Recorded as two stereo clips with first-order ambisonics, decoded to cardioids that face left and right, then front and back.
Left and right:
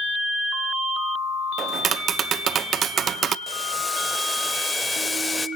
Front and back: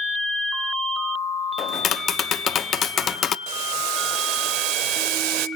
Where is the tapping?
45° right, 0.6 m.